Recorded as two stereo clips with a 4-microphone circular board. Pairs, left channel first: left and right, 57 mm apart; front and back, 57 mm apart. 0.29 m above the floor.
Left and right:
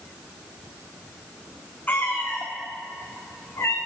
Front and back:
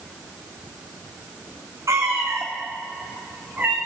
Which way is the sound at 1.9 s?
150° left.